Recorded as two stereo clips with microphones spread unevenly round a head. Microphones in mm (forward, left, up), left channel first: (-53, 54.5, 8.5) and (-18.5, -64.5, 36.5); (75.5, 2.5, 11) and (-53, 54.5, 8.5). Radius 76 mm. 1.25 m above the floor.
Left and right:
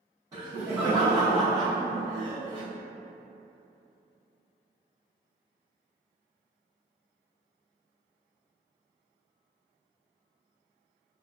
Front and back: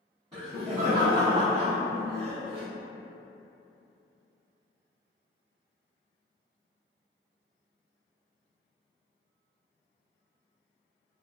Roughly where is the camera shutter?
I don't hear a camera shutter.